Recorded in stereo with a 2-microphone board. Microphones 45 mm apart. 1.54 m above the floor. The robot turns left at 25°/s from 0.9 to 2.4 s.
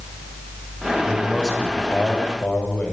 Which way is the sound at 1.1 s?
175° left.